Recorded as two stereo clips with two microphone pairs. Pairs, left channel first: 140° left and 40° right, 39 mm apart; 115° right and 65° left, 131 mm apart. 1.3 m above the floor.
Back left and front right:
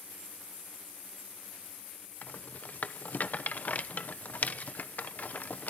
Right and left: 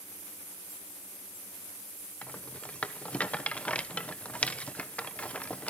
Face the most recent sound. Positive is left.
turn(degrees=170)